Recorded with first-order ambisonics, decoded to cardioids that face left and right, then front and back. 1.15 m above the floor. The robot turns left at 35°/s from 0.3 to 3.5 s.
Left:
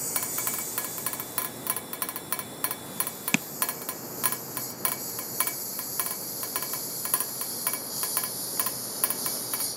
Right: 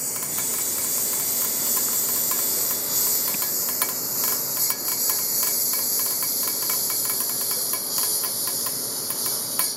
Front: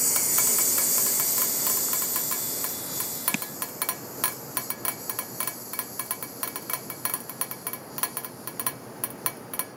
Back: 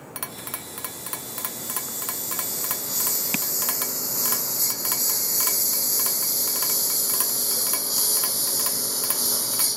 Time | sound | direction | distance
0.0 | a lawn mower | 15° right | ?
3.3 | tapping | 100° left | ?